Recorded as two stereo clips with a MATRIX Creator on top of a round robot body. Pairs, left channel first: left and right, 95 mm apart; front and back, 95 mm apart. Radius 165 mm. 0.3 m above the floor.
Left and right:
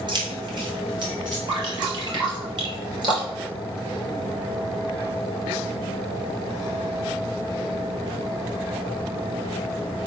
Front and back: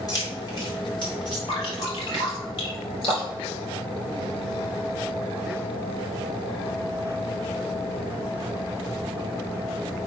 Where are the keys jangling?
50° right, 2.5 m; by 1.4 s 40° right, 3.5 m.